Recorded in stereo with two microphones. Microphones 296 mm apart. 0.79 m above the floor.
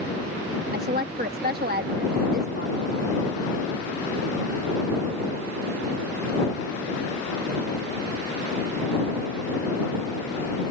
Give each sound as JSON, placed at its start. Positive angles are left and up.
{"t": 0.7, "sound": "a woman speaking", "side_deg": -35}